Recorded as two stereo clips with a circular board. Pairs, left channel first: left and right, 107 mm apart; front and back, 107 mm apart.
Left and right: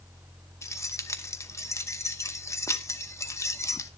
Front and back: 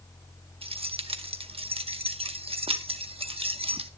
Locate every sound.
0.6 s keys jangling: 150° left, 0.9 m